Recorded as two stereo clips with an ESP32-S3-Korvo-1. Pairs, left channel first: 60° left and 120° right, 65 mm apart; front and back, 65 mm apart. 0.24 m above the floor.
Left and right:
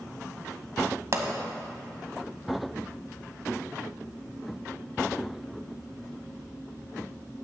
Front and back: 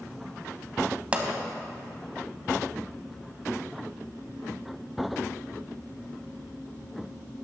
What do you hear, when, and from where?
1.1 s a pop: 115° right, 0.8 m